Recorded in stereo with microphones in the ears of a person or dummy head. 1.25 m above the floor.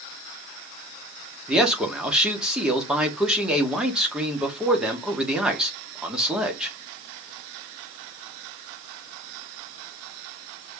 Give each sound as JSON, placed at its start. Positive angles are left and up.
{"t": 1.5, "sound": "a man speaking", "side_deg": -5, "distance_m": 2.0}